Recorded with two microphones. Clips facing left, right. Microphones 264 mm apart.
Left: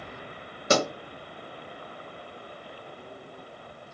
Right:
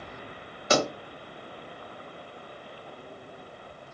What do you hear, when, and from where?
0.7 s a pop: 50° left (ahead or behind), 1.5 m